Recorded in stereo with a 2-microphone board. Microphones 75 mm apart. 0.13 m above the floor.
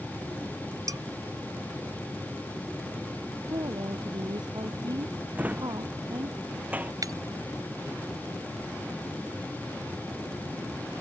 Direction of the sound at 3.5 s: 70° right (ahead or behind).